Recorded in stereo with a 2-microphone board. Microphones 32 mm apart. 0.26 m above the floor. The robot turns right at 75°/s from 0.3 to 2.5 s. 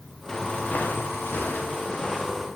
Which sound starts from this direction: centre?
Footsteps, at 0.3 s.